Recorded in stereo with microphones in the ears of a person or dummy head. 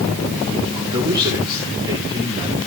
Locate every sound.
0.7 s a man speaking: 30° right (ahead or behind), 2.5 m